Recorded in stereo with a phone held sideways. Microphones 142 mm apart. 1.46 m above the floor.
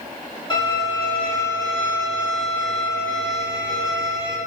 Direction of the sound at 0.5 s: 30° left (ahead or behind).